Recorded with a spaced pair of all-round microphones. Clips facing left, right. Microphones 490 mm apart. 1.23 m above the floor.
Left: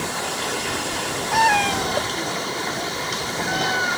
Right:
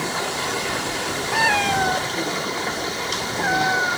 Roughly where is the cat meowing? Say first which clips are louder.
Left 2 dB; left.